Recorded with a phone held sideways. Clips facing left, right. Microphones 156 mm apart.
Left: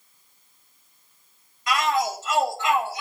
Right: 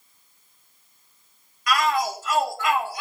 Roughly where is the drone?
I don't hear a drone.